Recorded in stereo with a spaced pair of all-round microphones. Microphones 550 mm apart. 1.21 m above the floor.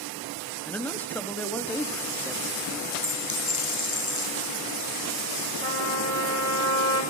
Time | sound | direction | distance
0.7 | a man speaking | 5° left (ahead or behind) | 2 m
3.0 | a dropped coin | 30° right (ahead or behind) | 5.5 m
5.6 | a trumpet | 75° right (ahead or behind) | 6.5 m